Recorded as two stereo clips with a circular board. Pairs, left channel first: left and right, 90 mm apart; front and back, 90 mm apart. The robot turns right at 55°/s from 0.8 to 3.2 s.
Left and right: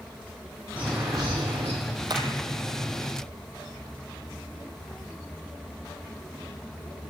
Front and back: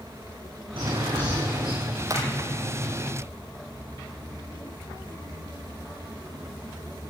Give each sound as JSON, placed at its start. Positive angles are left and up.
{"t": 0.8, "sound": "a bird", "azimuth_deg": -165, "distance_m": 8.5}
{"t": 2.1, "sound": "hammering", "azimuth_deg": -130, "distance_m": 5.0}